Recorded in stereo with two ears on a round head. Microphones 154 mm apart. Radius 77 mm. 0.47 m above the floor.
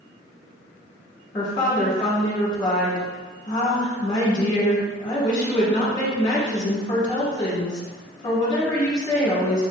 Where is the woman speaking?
25° left (ahead or behind), 1.3 m.